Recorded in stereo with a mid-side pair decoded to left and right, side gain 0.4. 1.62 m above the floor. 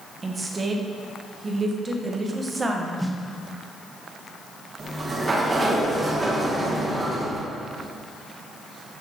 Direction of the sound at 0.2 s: 35° right.